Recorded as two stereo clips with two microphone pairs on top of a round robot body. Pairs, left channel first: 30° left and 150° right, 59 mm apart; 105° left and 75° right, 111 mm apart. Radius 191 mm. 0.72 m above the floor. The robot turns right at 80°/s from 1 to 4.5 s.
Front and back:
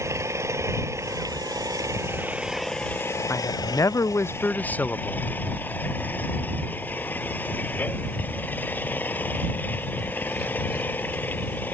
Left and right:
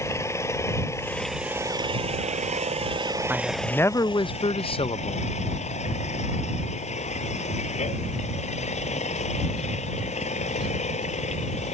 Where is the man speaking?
5° right; by 5.3 s 90° left.